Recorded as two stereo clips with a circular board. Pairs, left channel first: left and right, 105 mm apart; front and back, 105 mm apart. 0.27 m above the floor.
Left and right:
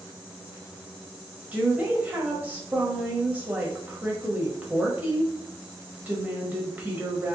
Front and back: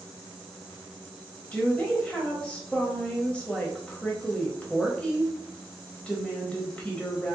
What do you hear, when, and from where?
1.5 s a woman speaking: 55° right, 1.1 m